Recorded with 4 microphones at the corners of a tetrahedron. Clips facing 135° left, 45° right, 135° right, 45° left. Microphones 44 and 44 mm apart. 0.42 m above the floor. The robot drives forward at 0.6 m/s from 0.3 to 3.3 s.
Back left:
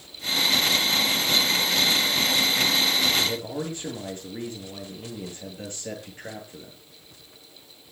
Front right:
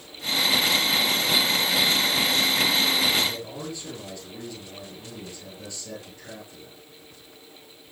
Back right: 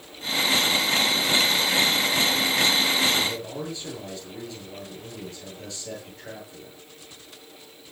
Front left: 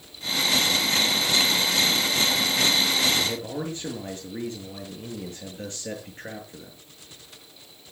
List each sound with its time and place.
3.2 s a man speaking: 95° left, 7.5 m